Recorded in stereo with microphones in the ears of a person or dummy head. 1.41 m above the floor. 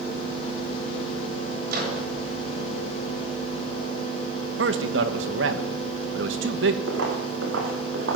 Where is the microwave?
50° right (ahead or behind), 7.5 m.